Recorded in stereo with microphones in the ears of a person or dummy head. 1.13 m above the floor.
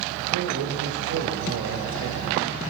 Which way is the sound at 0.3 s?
80° right.